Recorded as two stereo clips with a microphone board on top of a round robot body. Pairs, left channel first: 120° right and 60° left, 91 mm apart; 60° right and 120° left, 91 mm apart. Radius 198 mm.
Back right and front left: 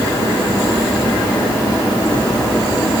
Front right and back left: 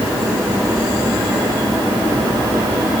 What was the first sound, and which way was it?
Only background noise.